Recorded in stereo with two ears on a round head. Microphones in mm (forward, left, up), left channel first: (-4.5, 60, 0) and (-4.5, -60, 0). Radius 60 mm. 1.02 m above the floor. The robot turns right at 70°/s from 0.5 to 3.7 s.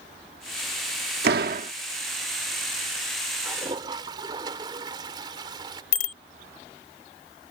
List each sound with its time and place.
1.2 s a door slam: 85° right; by 1.7 s 50° right
3.4 s a toilet flushing: 15° right (ahead or behind); by 5.8 s 30° right (ahead or behind)
5.9 s a bicycle bell: 60° left (ahead or behind)